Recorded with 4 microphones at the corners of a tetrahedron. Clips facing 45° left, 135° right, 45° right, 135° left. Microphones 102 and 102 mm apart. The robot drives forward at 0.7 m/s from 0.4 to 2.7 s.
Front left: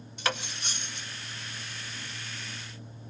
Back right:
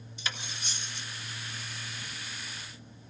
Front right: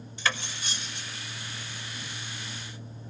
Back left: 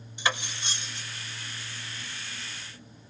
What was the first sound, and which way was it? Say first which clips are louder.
Cutlery clinking: front left 7 dB, back left 1 dB; 65° left.